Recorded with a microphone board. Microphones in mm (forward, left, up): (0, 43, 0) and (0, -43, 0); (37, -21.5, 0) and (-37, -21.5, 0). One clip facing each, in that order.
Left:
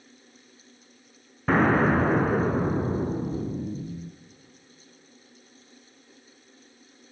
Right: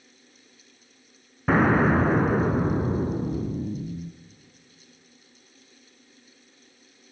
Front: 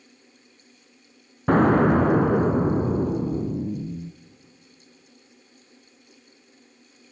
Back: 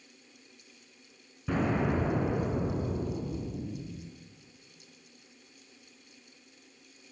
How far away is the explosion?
About 1.0 m.